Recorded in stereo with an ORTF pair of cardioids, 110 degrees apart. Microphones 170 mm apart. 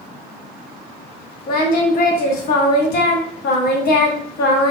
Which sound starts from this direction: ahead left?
Singing, at 1.5 s.